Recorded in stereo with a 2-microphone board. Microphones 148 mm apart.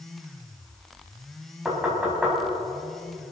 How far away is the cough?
No cough in this recording.